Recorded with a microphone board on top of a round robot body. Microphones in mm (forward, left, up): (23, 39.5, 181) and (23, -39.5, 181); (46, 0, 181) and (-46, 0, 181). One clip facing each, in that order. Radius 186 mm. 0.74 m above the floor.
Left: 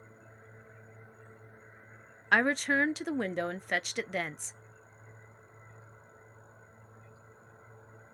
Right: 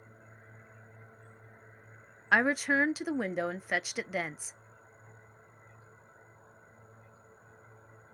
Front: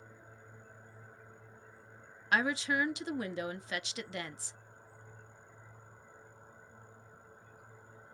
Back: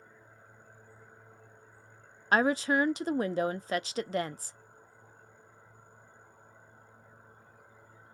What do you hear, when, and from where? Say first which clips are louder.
2.3 s a woman speaking: even, back 5 dB; 175° right, 0.5 m